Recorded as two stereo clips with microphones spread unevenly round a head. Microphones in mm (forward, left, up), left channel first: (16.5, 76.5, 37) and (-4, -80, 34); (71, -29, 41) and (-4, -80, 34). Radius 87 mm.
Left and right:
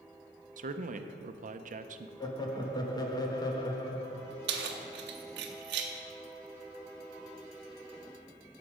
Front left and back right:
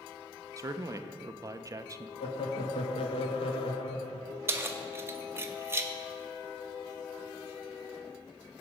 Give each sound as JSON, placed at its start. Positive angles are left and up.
{"t": 0.6, "sound": "a man speaking", "azimuth_deg": -105, "distance_m": 0.6}
{"t": 2.2, "sound": "laughter", "azimuth_deg": 15, "distance_m": 1.3}
{"t": 4.5, "sound": "keys jangling", "azimuth_deg": -80, "distance_m": 0.9}